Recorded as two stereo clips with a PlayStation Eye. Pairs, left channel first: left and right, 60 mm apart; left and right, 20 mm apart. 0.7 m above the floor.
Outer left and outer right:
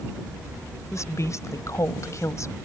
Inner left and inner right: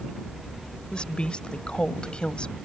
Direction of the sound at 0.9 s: 60° left (ahead or behind).